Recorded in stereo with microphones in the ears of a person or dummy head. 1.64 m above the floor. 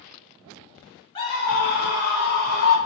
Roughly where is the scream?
Left.